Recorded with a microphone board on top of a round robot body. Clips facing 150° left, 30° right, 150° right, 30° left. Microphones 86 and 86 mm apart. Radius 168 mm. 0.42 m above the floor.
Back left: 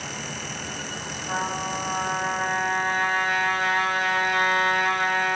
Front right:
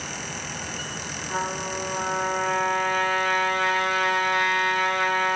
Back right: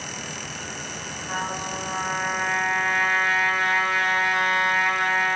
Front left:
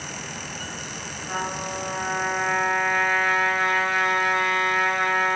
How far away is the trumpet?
About 3.5 m.